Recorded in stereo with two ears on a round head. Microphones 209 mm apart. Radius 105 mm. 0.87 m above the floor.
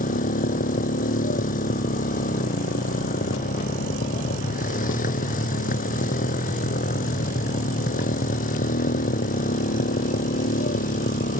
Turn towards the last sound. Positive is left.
turn(degrees=40)  # may be behind; listen again after turning